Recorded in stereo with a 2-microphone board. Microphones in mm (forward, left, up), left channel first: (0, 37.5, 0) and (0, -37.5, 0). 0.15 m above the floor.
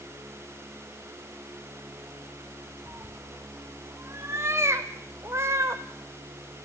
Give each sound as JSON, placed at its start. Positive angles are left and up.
{"t": 2.9, "sound": "a cat meowing", "side_deg": -35, "distance_m": 1.5}